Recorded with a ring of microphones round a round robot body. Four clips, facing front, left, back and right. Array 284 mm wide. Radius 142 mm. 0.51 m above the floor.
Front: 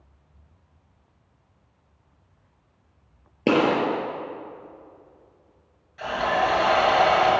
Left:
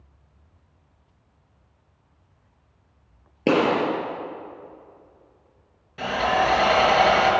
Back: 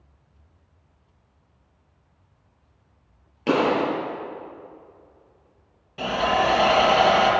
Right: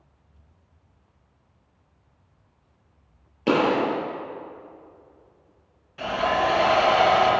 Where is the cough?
No cough in this recording.